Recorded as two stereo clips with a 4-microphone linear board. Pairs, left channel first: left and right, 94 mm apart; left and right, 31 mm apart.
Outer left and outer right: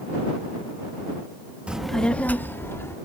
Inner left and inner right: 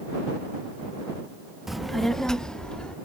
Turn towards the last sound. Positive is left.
turn(degrees=30)  # may be behind; listen again after turning